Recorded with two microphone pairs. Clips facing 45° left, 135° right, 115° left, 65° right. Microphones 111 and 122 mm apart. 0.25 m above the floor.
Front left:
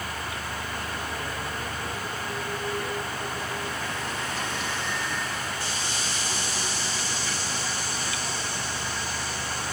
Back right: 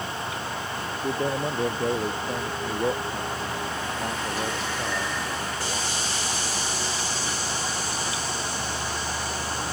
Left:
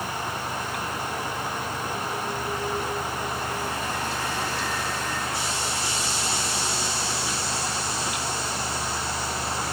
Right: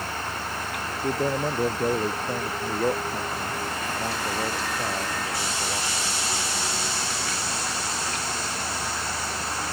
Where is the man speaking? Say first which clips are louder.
Back right 7 dB, right 5 dB; 100° right.